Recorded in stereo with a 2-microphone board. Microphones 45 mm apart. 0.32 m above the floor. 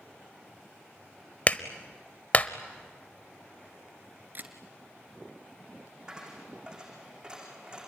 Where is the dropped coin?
20° right (ahead or behind), 8 m.